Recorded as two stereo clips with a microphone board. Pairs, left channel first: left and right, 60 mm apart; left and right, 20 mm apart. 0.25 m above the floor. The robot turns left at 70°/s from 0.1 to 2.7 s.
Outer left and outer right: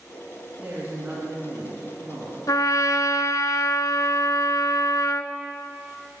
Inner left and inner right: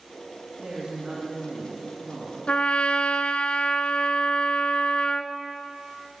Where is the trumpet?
80° left, 0.7 m; by 5.3 s 75° left (ahead or behind), 0.7 m.